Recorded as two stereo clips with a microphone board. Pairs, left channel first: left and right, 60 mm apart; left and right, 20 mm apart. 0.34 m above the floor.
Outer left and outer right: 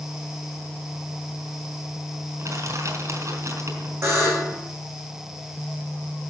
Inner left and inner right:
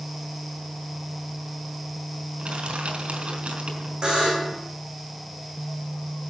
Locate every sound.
2.4 s crushing: 55° right (ahead or behind), 4 m
4.0 s a buzzer: 50° right (ahead or behind), 3.5 m